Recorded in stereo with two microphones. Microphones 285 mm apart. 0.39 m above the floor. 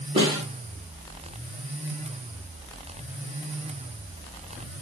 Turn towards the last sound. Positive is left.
turn(degrees=-20)  # may be behind; listen again after turning